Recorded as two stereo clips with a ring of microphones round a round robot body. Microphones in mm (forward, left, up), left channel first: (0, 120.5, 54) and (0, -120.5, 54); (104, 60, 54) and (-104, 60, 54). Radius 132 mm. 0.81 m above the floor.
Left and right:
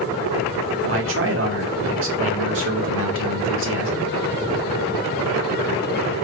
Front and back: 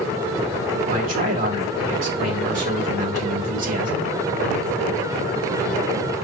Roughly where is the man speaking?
Behind right.